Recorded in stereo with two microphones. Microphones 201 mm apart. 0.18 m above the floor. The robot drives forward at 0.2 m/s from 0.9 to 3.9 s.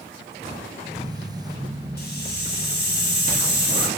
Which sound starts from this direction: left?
A hiss, at 2.0 s.